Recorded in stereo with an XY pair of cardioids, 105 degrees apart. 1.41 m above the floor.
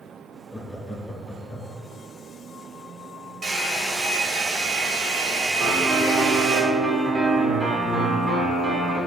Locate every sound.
0.5 s laughter: 25° left, 1.5 m
3.4 s a hair dryer: 30° right, 2.5 m
5.6 s a piano: 15° right, 2.5 m